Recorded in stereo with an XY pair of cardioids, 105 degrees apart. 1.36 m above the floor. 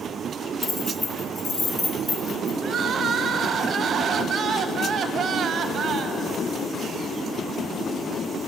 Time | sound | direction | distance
0.6 | keys jangling | 30° left | 2.5 m
2.6 | crying | 50° right | 0.7 m